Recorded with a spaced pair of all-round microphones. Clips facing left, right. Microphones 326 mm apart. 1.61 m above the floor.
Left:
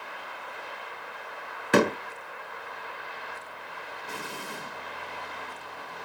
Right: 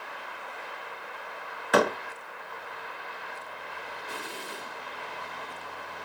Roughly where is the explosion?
Left.